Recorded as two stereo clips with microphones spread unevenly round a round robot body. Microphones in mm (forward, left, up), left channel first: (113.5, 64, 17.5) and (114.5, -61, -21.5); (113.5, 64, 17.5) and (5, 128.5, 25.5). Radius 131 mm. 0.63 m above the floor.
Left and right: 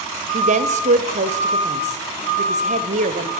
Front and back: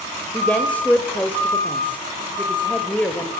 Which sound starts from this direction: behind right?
A woman speaking, at 0.3 s.